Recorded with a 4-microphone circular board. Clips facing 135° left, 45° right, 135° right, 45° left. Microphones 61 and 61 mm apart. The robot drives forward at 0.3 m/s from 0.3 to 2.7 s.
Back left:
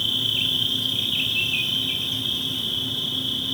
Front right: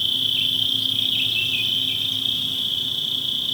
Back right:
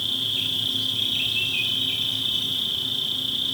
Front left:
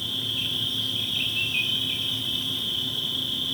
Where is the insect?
150° right, 1.7 m; by 3.5 s 160° right, 2.5 m.